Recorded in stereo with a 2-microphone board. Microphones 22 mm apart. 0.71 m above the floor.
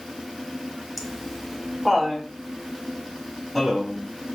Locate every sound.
1.0 s laughter: 10° right (ahead or behind), 0.6 m; by 4.0 s 5° right (ahead or behind), 2 m